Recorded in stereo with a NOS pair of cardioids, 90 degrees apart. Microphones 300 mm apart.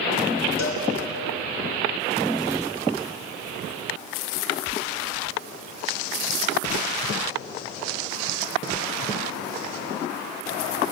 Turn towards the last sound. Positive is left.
turn(degrees=60)